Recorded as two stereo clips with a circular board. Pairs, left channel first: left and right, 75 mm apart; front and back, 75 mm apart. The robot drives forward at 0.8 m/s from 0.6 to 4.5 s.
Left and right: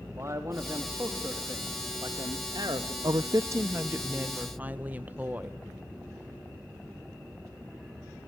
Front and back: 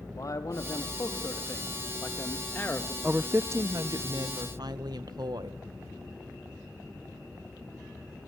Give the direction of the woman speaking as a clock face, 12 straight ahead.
3 o'clock.